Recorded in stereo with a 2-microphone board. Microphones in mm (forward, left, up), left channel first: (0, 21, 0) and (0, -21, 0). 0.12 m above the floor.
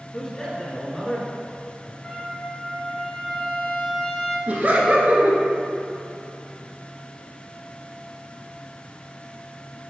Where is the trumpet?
20° left (ahead or behind), 1.7 m.